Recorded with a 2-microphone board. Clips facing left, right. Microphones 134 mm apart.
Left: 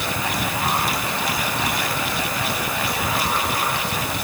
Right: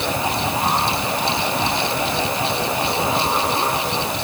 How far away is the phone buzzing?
I don't hear a phone buzzing.